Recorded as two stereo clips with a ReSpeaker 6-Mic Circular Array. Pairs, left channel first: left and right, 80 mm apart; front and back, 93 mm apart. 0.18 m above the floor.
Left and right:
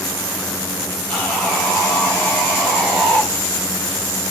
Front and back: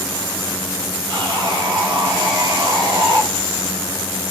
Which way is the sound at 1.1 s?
155° left.